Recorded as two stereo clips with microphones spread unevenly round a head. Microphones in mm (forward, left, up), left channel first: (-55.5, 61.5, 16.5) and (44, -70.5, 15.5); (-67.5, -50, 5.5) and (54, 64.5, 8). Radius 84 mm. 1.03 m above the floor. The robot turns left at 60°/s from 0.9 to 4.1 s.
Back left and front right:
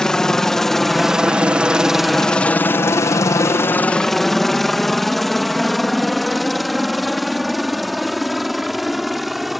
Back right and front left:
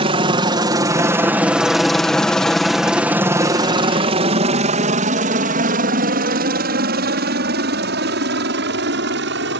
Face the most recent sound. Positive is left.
turn(degrees=35)